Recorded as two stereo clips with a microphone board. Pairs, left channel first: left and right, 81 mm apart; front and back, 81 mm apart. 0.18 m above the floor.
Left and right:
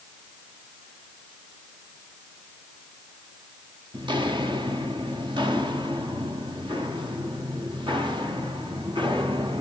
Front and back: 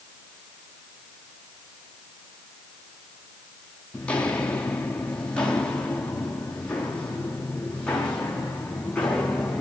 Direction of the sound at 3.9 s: 75° right.